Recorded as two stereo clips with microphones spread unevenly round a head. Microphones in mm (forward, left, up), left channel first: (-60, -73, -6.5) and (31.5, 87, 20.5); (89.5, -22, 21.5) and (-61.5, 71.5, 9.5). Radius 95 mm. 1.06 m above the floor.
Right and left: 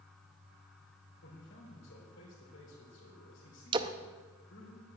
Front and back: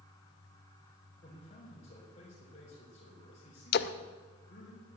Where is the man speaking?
85° right, 4 m.